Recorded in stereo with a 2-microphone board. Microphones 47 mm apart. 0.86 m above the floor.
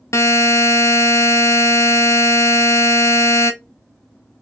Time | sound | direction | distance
0.1 | a buzzer | 85° left | 0.6 m